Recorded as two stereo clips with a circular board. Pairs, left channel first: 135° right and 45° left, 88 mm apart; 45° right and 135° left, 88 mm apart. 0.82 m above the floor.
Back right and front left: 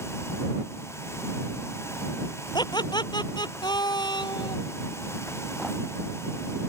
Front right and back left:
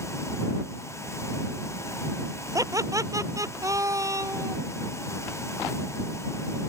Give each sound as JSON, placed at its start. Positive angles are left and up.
{"t": 2.5, "sound": "laughter", "azimuth_deg": -175}